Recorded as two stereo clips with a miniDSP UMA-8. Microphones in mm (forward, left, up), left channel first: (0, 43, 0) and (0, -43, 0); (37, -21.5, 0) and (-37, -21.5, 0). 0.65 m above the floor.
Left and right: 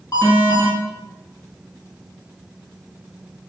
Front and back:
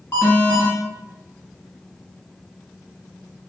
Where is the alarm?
50° left, 1.3 m.